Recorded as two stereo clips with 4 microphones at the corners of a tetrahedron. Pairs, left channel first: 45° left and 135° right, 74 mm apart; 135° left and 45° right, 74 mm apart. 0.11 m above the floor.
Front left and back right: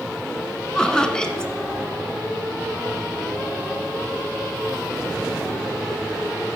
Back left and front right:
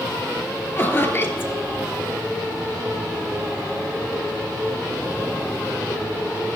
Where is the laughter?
115° left, 1.6 m.